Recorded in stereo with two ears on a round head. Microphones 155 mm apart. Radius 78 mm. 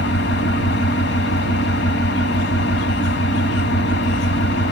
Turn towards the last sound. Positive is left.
turn(degrees=70)  # may be behind; listen again after turning